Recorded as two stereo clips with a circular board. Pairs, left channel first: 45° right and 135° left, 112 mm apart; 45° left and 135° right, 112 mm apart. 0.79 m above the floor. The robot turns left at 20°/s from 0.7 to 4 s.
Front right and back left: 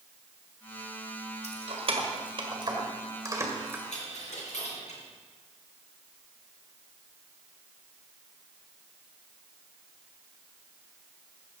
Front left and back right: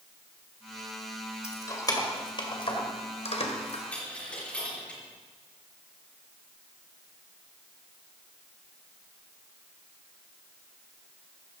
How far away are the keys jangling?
About 2 m.